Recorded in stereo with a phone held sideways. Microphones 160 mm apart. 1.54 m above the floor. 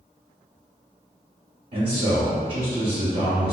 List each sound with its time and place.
1.7 s a man speaking: 50° right (ahead or behind), 1.5 m